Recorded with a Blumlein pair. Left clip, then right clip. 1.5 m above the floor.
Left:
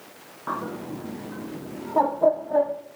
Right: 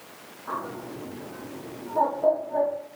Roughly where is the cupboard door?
I don't hear a cupboard door.